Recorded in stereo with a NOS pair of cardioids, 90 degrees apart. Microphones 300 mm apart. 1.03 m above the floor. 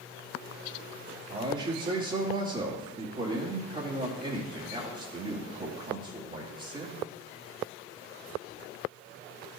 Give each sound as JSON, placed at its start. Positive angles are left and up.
{"t": 1.3, "sound": "a man speaking", "azimuth_deg": -30, "distance_m": 2.0}